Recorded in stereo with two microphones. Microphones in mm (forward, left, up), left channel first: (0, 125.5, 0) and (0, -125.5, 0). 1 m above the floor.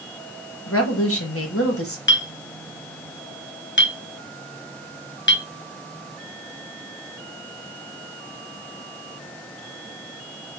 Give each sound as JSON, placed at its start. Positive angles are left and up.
{"t": 0.7, "sound": "a woman speaking", "side_deg": 60, "distance_m": 1.3}
{"t": 2.1, "sound": "a clink", "side_deg": 50, "distance_m": 0.5}